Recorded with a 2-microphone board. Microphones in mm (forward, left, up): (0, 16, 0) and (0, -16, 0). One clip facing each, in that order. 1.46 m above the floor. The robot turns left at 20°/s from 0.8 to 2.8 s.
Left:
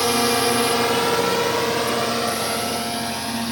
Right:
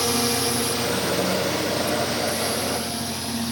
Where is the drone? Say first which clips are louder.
Left 4 dB; 25° left (ahead or behind); by 3.5 s 30° left (ahead or behind).